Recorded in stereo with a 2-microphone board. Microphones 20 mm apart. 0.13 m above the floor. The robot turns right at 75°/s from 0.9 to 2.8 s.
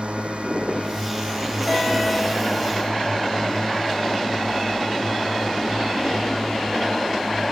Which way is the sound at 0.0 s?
80° right.